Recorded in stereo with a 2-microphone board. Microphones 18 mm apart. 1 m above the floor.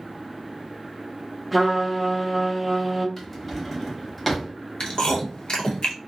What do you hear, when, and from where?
1.5 s a trumpet: centre (ahead or behind), 0.8 m
3.2 s a drawer: 15° left (ahead or behind), 1.1 m
4.8 s chewing: 60° left (ahead or behind), 0.8 m